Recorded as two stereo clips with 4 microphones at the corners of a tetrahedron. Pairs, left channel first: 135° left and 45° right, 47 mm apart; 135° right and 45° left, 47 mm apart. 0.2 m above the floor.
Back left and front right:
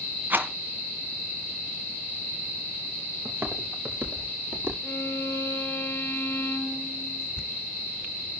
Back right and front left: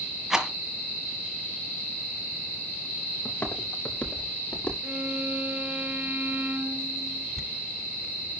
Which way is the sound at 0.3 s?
30° right.